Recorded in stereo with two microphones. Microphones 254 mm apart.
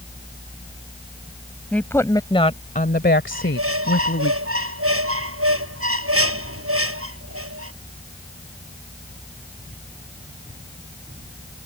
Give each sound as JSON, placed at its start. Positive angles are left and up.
{"t": 1.7, "sound": "a woman speaking", "side_deg": 5}
{"t": 3.3, "sound": "a squeak", "side_deg": -65}